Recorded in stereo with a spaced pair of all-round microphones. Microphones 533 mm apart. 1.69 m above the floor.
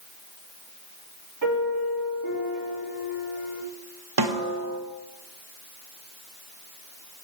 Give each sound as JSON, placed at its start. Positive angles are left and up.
{"t": 1.4, "sound": "a piano", "side_deg": 40, "distance_m": 4.0}
{"t": 4.2, "sound": "a snare drum", "side_deg": -45, "distance_m": 1.1}